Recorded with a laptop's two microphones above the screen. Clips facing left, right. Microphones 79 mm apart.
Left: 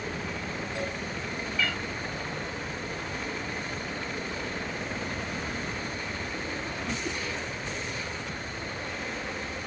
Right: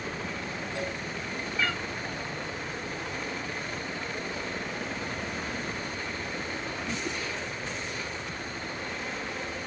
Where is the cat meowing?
30° right (ahead or behind), 0.8 m.